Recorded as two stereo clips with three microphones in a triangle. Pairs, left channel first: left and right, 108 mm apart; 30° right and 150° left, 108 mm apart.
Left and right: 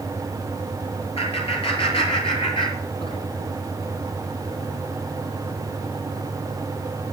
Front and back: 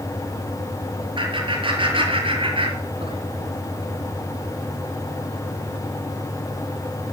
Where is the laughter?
115° left, 8 m; by 3.2 s 120° left, 6.5 m.